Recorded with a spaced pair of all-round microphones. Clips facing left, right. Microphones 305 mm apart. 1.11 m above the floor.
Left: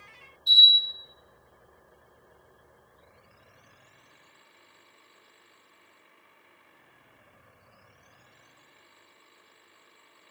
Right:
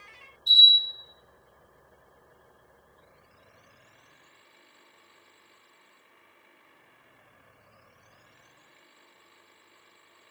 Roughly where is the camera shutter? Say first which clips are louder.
Even; left.